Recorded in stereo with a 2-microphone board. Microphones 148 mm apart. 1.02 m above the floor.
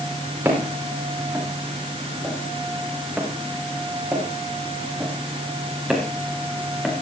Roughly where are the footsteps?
Centre.